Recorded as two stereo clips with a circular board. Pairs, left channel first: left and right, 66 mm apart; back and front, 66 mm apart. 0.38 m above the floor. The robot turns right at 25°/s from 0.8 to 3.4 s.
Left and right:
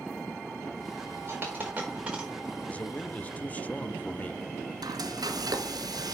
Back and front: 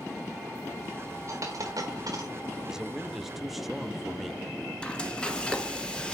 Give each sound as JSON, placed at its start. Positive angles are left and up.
{"t": 1.3, "sound": "a dropped coin", "azimuth_deg": -35, "distance_m": 5.0}
{"t": 2.7, "sound": "a man speaking", "azimuth_deg": 65, "distance_m": 0.8}
{"t": 4.8, "sound": "frying", "azimuth_deg": -105, "distance_m": 1.3}